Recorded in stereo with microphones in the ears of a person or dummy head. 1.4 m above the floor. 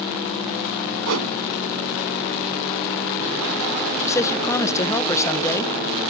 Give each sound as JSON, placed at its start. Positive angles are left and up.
{"t": 1.1, "sound": "a whoosh", "side_deg": -80}
{"t": 4.0, "sound": "a man speaking", "side_deg": 15}